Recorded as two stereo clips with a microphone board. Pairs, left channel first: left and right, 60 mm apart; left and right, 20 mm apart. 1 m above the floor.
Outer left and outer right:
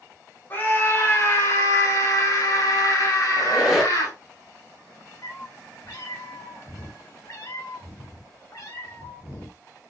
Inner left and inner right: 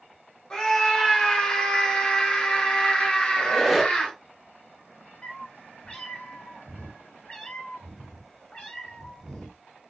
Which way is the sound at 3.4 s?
10° right (ahead or behind).